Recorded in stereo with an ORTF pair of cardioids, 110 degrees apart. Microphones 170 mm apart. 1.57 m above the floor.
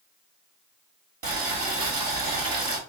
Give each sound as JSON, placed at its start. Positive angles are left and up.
{"t": 1.2, "sound": "boiling", "azimuth_deg": -65, "distance_m": 1.8}